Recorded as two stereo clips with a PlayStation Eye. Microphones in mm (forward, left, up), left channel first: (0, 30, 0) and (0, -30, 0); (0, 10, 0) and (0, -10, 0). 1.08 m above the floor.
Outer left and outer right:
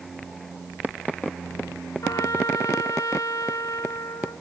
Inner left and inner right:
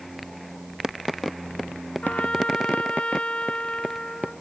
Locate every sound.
2.0 s a trumpet: 75° left (ahead or behind)